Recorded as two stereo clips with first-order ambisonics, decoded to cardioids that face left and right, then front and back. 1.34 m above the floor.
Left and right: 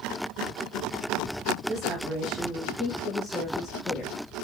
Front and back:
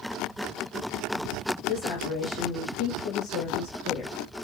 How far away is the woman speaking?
About 1.7 m.